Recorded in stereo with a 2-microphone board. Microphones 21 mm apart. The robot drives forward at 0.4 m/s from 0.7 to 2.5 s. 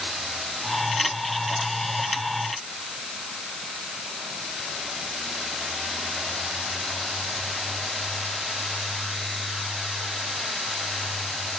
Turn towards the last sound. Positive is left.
No sound to turn to.